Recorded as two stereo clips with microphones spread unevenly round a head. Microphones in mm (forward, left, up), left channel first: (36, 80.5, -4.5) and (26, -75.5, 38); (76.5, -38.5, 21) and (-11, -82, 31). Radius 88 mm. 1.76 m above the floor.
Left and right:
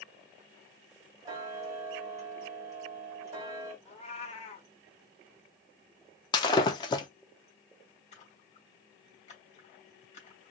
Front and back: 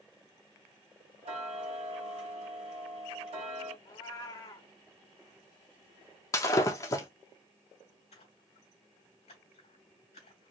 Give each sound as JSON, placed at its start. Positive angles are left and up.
{"t": 1.2, "sound": "ticking", "azimuth_deg": -155, "distance_m": 1.7}
{"t": 3.9, "sound": "a cat meowing", "azimuth_deg": 40, "distance_m": 1.0}
{"t": 6.3, "sound": "breaking glass", "azimuth_deg": 20, "distance_m": 0.8}
{"t": 8.1, "sound": "a splash", "azimuth_deg": 40, "distance_m": 3.0}